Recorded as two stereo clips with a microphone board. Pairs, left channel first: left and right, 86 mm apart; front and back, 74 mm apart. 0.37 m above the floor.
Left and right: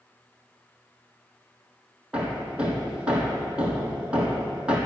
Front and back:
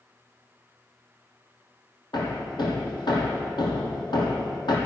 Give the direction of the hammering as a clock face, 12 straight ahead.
12 o'clock.